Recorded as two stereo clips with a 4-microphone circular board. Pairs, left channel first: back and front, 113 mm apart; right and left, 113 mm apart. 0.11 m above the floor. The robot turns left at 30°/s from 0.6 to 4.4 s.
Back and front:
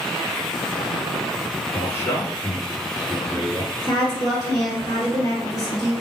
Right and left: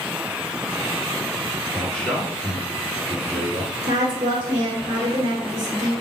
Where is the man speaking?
160° right, 1.4 m; by 3.7 s 140° left, 1.4 m.